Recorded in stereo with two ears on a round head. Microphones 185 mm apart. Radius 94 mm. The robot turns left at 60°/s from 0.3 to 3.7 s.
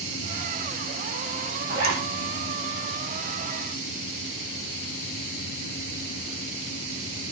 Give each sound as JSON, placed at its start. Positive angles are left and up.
{"t": 1.7, "sound": "a zipper", "side_deg": -40, "distance_m": 6.5}